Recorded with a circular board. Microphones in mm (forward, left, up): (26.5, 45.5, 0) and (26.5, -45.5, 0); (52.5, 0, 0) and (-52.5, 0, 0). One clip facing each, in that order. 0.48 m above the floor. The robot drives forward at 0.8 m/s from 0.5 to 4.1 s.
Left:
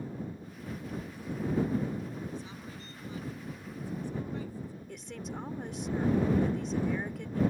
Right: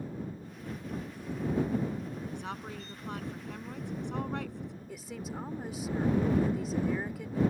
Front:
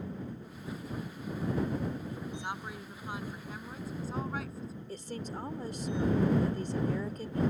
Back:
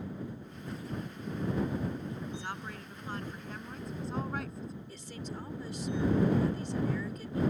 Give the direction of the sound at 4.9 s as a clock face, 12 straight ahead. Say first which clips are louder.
Right 1 dB, front 3 dB; 12 o'clock.